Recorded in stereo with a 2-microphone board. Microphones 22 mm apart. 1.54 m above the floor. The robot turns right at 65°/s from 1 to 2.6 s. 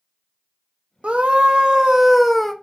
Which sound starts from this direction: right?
A scream, at 1.0 s.